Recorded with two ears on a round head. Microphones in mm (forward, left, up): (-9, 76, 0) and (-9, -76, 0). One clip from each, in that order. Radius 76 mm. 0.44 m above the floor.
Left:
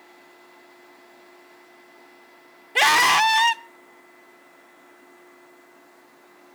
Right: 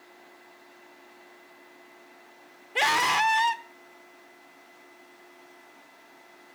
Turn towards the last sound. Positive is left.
turn(degrees=25)  # may be behind; listen again after turning